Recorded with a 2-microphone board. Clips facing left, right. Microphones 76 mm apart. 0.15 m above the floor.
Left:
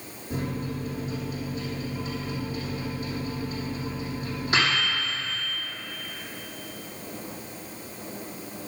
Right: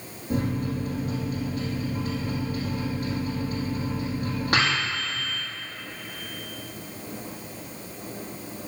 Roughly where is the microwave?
Right.